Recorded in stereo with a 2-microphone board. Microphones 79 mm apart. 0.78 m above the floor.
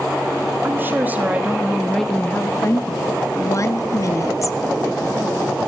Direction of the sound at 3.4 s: 45° left (ahead or behind).